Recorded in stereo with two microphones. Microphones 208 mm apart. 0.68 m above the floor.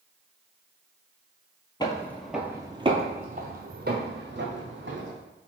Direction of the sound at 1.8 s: 20° left (ahead or behind).